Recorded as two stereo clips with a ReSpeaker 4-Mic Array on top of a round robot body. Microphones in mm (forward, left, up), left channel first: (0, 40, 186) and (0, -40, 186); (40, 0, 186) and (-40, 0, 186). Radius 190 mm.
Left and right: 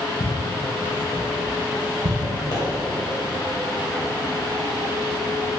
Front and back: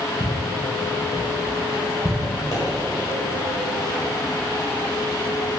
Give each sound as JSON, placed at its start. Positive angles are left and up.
{"t": 0.2, "sound": "footsteps", "azimuth_deg": 130, "distance_m": 1.6}
{"t": 2.5, "sound": "a pop", "azimuth_deg": 45, "distance_m": 2.5}